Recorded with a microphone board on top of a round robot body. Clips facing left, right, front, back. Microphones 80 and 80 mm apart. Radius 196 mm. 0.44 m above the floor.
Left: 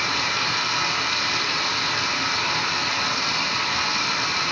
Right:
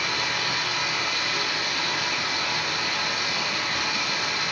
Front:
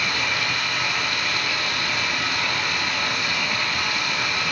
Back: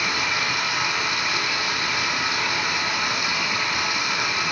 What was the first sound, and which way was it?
Running water, 105° left.